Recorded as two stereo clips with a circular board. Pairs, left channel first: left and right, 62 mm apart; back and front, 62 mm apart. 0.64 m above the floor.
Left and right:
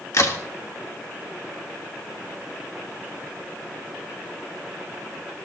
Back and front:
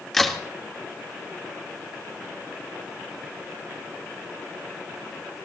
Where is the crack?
100° left, 1.8 m.